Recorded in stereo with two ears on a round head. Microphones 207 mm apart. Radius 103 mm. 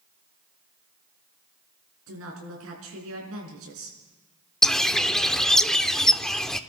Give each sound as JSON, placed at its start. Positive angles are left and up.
{"t": 2.1, "sound": "a woman speaking", "side_deg": -70, "distance_m": 5.0}
{"t": 4.6, "sound": "a bird", "side_deg": 0, "distance_m": 0.5}